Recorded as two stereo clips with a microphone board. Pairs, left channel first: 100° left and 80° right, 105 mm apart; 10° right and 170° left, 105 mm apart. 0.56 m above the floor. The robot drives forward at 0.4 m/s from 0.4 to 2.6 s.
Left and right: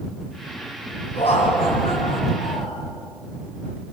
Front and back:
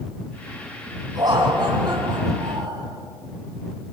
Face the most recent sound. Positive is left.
turn(degrees=125)